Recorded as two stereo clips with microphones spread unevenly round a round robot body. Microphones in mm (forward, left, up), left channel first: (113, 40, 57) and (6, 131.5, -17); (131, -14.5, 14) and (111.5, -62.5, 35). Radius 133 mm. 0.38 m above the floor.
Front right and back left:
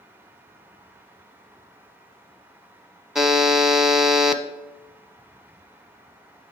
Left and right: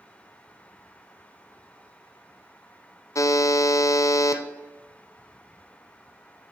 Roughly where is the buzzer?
Ahead left.